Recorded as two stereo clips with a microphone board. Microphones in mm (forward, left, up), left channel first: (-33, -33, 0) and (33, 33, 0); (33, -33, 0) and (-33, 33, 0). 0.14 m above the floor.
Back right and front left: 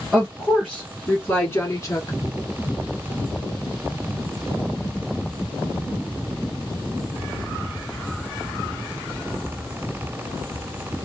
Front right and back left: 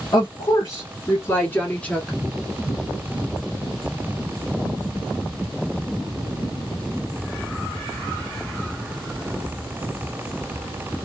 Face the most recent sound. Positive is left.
turn(degrees=-125)